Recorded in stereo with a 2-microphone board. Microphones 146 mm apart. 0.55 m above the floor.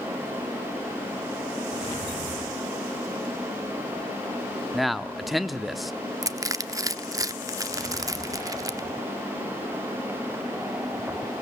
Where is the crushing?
20° right (ahead or behind), 0.7 m.